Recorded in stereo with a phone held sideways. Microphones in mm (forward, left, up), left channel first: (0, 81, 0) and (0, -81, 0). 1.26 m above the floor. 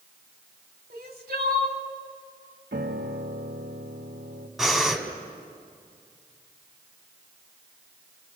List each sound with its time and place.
0.9 s crying: 70° right (ahead or behind), 2 m
2.7 s a piano: 85° right, 1.5 m
4.6 s breathing: centre (ahead or behind), 2.5 m